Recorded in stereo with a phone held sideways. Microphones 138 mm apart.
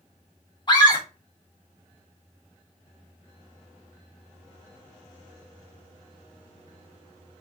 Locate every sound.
0.7 s a scream: 35° left (ahead or behind), 1.4 m